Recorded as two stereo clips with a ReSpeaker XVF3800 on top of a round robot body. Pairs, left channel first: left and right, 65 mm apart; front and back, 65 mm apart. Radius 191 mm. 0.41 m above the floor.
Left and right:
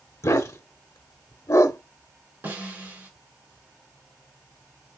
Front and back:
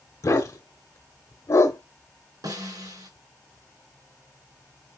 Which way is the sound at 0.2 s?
45° left.